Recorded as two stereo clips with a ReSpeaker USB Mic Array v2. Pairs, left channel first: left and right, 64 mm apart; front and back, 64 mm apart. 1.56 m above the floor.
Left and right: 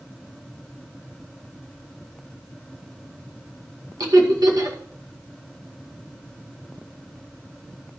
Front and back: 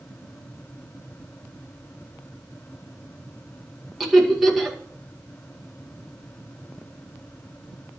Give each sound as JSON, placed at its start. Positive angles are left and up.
{"t": 4.0, "sound": "laughter", "azimuth_deg": -90, "distance_m": 2.0}